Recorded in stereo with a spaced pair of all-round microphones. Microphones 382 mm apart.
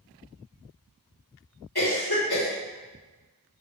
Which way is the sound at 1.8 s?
70° left (ahead or behind).